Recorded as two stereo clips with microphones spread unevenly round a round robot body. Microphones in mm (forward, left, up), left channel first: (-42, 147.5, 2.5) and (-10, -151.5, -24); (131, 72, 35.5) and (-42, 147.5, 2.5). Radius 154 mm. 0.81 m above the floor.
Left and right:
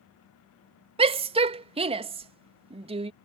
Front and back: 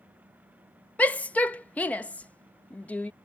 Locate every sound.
1.0 s a shout: 120° right